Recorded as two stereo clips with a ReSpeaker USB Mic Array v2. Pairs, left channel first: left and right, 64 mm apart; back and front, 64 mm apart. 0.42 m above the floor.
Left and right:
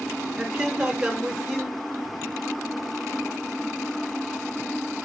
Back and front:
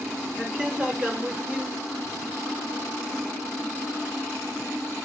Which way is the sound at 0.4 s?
40° right.